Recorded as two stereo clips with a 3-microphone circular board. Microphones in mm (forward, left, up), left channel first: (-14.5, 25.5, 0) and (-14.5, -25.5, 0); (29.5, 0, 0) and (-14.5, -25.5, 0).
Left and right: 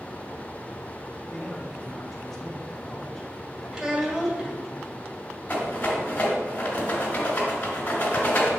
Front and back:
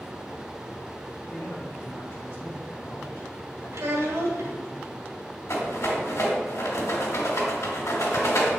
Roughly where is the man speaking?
Ahead.